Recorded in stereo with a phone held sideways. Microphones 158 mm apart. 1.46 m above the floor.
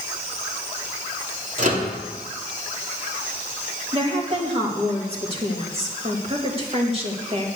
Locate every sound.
1.6 s a microwave: 55° right (ahead or behind), 3 m
3.9 s a woman speaking: 40° right (ahead or behind), 2.5 m